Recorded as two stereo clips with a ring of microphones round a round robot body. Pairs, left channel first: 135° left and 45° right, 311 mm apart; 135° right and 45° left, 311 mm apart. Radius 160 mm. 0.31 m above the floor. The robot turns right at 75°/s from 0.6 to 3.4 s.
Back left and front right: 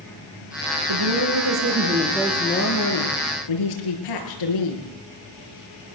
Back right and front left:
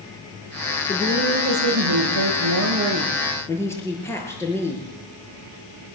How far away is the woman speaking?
About 6 m.